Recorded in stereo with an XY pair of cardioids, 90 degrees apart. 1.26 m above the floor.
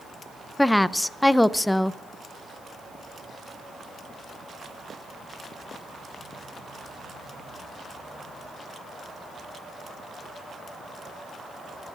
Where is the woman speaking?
10° left, 0.5 m.